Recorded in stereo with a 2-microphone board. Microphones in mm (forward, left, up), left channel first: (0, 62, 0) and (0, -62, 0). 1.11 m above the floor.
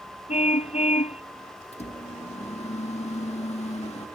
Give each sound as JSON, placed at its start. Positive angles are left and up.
{"t": 0.3, "sound": "a car horn", "side_deg": 70}
{"t": 1.7, "sound": "a microwave", "side_deg": 60}